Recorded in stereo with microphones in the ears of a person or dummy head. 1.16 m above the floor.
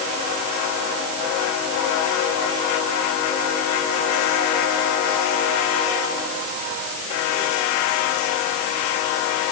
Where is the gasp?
I don't hear a gasp.